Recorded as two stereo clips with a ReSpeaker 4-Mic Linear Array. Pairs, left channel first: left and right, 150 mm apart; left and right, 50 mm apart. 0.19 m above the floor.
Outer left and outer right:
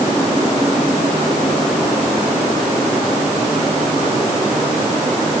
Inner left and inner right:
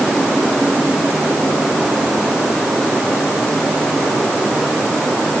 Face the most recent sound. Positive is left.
No sound to turn to.